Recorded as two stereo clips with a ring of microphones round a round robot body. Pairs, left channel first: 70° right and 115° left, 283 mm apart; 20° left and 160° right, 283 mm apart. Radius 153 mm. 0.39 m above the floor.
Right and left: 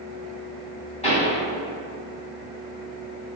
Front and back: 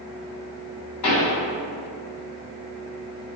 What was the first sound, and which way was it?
A pop, straight ahead.